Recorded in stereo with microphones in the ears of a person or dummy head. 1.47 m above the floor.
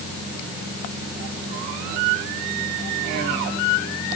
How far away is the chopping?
I don't hear chopping.